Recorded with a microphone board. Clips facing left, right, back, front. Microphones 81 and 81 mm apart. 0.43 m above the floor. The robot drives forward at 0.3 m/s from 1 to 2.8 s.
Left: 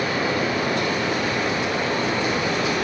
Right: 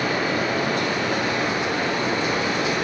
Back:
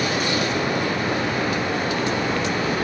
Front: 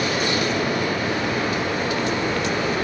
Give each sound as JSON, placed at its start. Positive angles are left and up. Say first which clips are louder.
{"t": 0.0, "sound": "running water", "louder": "even, even", "azimuth_deg": -135, "distance_m": 2.0}